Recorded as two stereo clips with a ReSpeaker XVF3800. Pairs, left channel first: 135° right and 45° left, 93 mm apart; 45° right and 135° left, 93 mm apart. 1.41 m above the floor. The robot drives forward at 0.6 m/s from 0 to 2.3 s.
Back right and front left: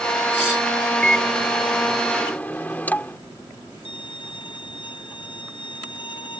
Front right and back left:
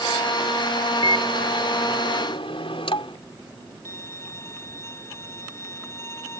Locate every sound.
1.0 s a microwave: 55° right; by 3.2 s 60° right
3.9 s a violin: 105° right